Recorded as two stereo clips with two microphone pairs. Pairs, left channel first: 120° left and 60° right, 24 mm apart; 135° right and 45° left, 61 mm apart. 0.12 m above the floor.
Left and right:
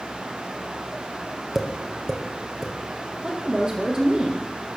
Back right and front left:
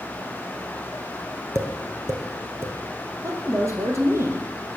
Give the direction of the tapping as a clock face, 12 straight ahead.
12 o'clock.